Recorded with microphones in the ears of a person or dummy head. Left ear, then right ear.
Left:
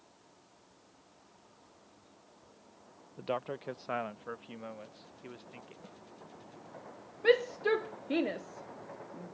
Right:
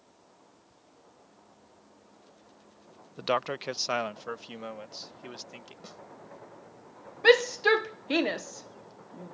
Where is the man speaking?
55° right (ahead or behind); by 5.7 s 85° right.